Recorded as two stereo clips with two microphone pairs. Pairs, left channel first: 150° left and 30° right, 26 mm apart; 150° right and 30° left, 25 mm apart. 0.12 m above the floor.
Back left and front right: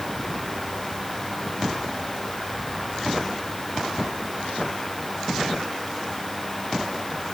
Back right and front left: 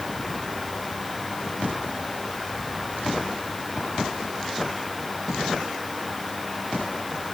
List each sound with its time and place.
Only background noise.